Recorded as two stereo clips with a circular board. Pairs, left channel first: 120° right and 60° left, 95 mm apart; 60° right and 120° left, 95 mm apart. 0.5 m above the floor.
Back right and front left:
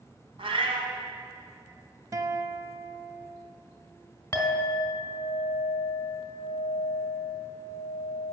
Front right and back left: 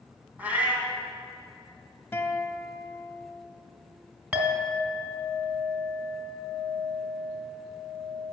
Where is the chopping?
I don't hear chopping.